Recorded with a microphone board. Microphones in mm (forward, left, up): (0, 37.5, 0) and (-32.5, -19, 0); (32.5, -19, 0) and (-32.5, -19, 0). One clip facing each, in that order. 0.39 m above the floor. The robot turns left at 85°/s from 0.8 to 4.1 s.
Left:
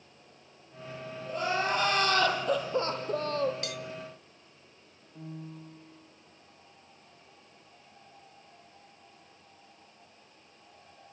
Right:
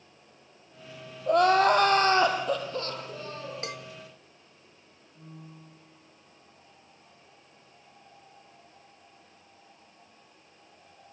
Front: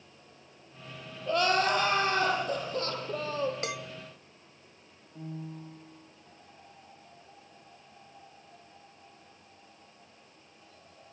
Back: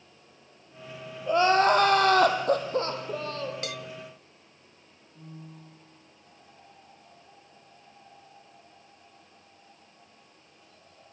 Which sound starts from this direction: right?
Crying, at 1.3 s.